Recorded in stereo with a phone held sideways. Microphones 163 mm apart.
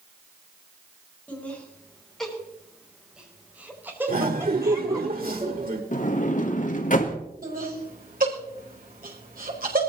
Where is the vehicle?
No vehicle in this recording.